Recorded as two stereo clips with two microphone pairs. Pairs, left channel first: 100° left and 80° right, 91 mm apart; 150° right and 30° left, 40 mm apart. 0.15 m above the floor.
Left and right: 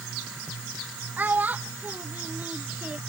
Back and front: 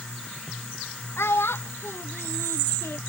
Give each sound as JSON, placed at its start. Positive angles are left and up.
{"t": 1.2, "sound": "a child speaking", "azimuth_deg": -150}